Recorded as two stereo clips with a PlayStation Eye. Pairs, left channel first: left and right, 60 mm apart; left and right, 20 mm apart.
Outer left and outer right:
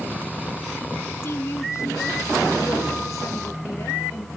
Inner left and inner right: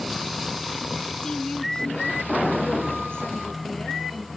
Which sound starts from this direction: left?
A woman speaking, at 1.2 s.